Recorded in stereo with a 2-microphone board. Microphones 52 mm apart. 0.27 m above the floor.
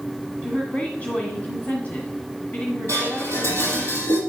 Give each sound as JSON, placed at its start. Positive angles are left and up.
{"t": 0.4, "sound": "a woman speaking", "side_deg": 35, "distance_m": 1.7}
{"t": 2.9, "sound": "dishes clattering", "side_deg": 80, "distance_m": 5.0}